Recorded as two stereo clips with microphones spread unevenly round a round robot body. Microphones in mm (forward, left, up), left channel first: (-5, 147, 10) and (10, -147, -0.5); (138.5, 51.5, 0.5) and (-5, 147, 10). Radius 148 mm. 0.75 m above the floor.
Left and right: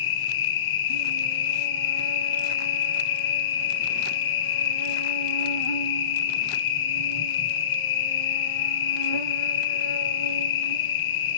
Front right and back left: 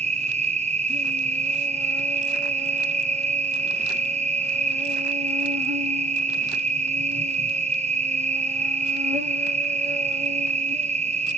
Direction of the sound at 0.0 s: 100° left.